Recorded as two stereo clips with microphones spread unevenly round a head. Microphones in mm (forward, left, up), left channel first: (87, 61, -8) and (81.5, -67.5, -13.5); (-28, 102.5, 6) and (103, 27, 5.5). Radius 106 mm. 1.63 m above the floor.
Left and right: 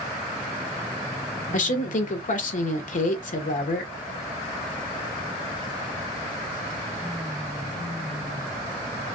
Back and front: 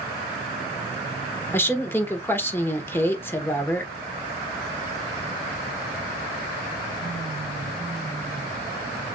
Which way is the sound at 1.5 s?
75° left.